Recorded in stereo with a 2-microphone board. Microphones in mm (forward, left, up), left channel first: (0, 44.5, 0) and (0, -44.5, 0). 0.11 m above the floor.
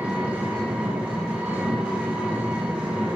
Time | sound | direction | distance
0.0 | an engine running | 20° right (ahead or behind) | 5.5 m